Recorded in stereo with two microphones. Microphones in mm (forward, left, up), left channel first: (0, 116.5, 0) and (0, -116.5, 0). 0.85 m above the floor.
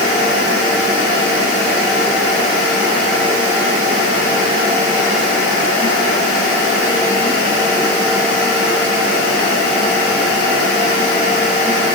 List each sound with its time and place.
Only background noise.